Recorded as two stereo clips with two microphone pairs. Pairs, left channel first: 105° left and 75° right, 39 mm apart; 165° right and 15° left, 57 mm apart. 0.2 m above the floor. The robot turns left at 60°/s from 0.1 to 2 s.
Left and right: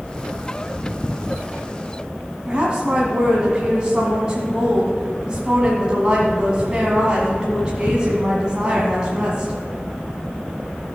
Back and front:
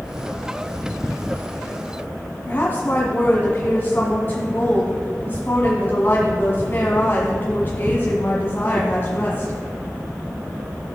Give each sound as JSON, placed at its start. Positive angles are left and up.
{"t": 2.5, "sound": "a woman speaking", "azimuth_deg": -130, "distance_m": 1.3}